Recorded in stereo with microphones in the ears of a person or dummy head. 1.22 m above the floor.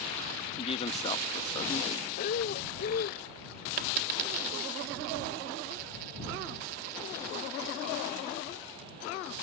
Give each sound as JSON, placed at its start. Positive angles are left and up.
{"t": 0.6, "sound": "a man speaking", "side_deg": 35}
{"t": 2.2, "sound": "breathing", "side_deg": 55}
{"t": 3.8, "sound": "a dropped coin", "side_deg": -50}